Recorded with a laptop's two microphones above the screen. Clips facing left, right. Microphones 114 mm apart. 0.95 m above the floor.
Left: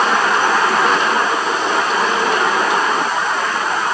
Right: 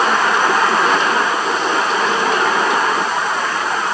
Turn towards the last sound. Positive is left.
No sound to turn to.